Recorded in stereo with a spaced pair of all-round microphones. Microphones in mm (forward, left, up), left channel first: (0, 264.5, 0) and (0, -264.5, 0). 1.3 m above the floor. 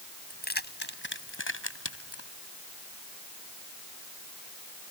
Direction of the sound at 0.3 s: 15° left (ahead or behind).